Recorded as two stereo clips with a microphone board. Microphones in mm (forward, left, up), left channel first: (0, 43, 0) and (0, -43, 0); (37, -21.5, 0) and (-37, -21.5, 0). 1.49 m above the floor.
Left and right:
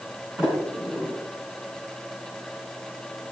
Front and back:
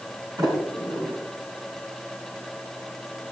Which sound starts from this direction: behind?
A sliding door, at 0.4 s.